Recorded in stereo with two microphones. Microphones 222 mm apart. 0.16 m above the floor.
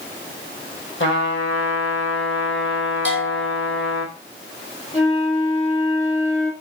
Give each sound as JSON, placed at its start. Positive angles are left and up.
{"t": 1.0, "sound": "a trumpet", "side_deg": 65, "distance_m": 1.7}
{"t": 3.0, "sound": "a bell", "side_deg": 55, "distance_m": 1.5}
{"t": 4.9, "sound": "a flute", "side_deg": 60, "distance_m": 3.0}